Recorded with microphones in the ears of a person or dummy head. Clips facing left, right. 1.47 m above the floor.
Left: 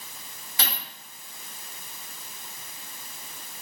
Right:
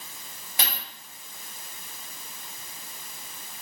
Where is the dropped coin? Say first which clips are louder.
Even; 15° right (ahead or behind), 1.7 m.